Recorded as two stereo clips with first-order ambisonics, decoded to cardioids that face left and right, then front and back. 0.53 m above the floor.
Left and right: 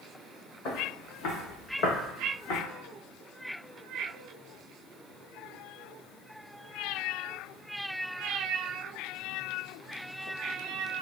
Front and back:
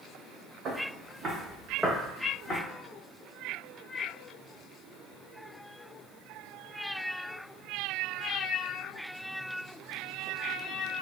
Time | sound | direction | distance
0.7 | footsteps | 130° left | 2.0 m